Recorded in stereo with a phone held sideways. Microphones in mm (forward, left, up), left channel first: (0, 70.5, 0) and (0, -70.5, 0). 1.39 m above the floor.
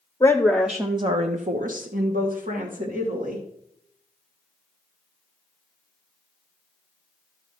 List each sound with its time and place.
0.2 s a woman speaking: 20° left (ahead or behind), 1.0 m; by 3.4 s 70° right (ahead or behind), 2.5 m